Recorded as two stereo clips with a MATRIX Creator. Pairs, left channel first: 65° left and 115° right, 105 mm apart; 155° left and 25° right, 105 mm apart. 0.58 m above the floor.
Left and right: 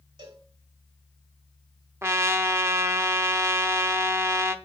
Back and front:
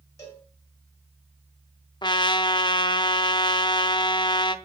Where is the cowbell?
140° right, 2 m.